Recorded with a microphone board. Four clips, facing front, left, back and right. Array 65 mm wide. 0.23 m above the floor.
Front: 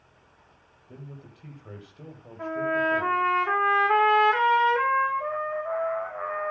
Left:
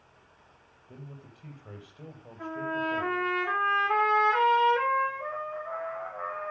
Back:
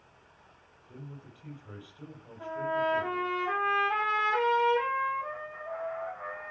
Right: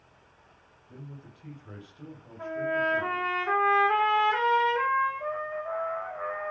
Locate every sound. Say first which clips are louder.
0.9 s a man speaking: right 1 dB, front 2 dB; 30° left, 6.5 m
2.4 s a trumpet: right 3 dB, front 4 dB; straight ahead, 5.5 m